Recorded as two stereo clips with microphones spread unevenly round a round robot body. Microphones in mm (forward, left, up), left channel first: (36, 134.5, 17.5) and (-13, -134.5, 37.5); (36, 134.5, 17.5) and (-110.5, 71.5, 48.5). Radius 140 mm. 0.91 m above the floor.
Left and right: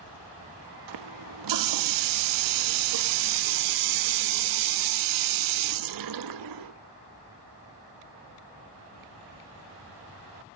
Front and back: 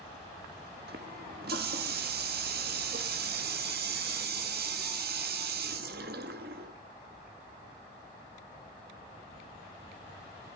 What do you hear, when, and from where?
0.9 s a running tap: 110° right, 0.9 m